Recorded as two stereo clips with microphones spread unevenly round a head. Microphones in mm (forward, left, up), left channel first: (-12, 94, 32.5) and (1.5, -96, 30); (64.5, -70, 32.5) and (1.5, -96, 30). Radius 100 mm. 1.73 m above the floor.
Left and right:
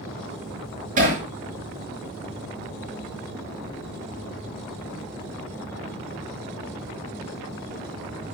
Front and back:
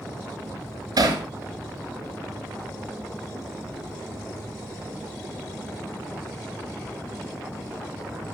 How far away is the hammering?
About 6.5 m.